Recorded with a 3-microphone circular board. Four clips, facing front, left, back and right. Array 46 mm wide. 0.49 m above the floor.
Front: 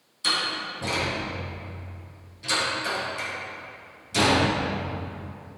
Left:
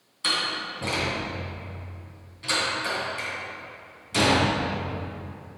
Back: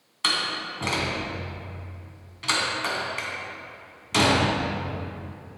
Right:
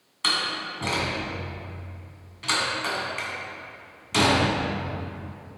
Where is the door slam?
155° right, 3 m.